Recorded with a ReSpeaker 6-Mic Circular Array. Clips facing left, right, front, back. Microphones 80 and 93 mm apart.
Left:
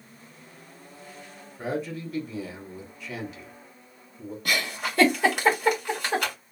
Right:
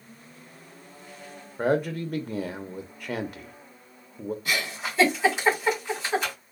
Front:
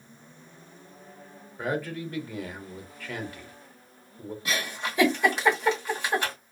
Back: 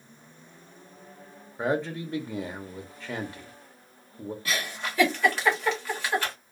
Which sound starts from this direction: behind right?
A man speaking, at 1.6 s.